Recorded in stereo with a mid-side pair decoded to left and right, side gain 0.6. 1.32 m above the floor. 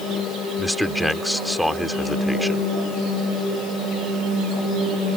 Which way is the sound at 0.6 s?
5° left.